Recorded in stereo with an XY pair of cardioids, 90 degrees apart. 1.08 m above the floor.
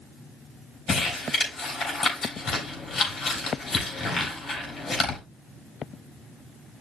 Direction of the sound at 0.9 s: 50° left.